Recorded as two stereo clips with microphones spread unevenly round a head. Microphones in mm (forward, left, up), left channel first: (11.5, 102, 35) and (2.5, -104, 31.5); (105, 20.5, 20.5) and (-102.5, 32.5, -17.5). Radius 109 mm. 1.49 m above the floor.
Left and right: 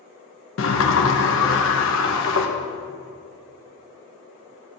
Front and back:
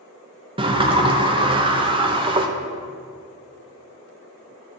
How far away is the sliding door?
About 0.9 m.